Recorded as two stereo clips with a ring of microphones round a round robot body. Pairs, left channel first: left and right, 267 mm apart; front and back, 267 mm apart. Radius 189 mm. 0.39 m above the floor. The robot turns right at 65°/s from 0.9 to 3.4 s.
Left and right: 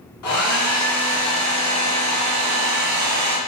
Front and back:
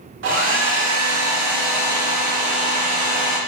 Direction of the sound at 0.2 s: 135° left.